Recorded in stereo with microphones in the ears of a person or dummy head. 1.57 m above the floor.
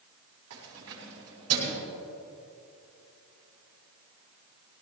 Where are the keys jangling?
80° right, 7 m; by 1.8 s 75° right (ahead or behind), 7 m.